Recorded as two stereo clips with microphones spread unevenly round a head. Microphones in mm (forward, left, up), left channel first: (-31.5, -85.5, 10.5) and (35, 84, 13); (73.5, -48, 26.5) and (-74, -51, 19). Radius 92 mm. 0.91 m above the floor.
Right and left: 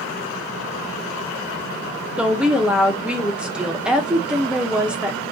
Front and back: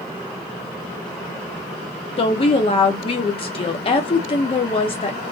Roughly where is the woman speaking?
Ahead.